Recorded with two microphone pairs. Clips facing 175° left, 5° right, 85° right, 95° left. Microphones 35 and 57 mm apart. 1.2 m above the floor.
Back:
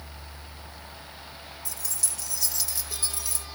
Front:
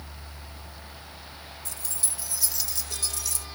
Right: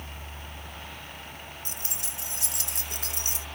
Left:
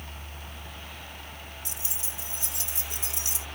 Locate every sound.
1.6 s keys jangling: 40° right, 0.7 m; by 3.5 s 125° right, 1.0 m